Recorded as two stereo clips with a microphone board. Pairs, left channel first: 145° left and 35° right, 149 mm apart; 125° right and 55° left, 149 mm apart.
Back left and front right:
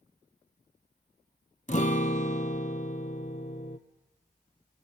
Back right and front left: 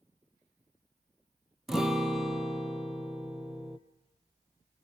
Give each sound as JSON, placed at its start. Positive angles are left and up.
{"t": 1.7, "sound": "a guitar", "azimuth_deg": 145, "distance_m": 1.0}